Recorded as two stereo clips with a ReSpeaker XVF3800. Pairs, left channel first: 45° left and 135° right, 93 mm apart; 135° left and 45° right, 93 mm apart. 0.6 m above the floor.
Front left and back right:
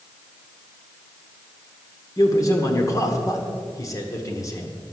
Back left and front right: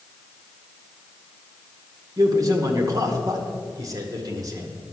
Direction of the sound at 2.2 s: 5° right.